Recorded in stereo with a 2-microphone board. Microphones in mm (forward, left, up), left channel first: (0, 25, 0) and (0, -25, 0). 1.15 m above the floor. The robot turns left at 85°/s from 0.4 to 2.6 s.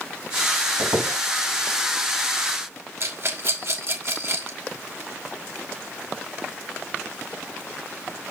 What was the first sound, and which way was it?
A squeak, 55° right (ahead or behind).